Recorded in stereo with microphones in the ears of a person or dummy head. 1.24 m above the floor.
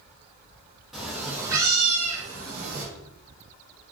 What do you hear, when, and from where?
0.9 s a cat meowing: centre (ahead or behind), 0.8 m; by 2.9 s 55° right (ahead or behind), 0.7 m